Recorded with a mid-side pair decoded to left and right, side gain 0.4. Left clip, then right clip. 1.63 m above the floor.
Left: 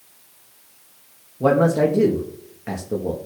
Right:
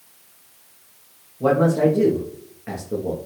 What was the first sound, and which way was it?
A man speaking, 35° left.